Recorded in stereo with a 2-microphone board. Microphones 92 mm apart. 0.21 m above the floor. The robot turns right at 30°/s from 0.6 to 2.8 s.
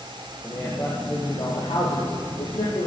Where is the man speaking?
45° left, 9.5 m; by 2.9 s 115° left, 9.5 m.